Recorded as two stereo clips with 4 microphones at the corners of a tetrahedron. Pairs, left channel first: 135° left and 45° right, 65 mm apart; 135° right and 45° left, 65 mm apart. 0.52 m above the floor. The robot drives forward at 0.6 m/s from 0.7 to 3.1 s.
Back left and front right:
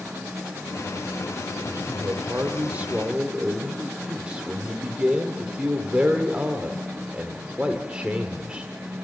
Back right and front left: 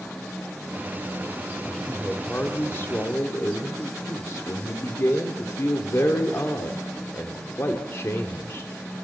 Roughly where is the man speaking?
Ahead right.